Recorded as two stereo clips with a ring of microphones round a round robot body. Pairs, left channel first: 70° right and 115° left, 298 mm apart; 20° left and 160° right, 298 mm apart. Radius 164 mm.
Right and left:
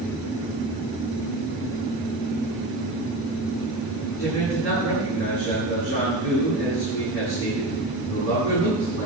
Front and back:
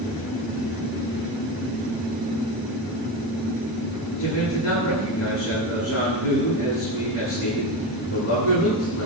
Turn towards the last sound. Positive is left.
turn(degrees=-20)